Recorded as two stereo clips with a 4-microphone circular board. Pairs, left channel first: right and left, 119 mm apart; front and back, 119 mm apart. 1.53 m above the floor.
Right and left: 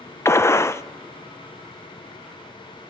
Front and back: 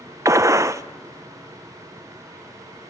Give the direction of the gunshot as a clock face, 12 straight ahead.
5 o'clock.